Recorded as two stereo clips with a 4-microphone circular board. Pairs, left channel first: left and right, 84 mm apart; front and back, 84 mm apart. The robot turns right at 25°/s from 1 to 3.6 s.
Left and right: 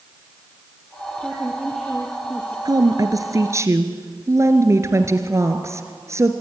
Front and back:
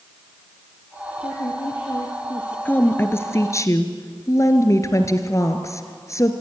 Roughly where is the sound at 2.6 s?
Ahead right.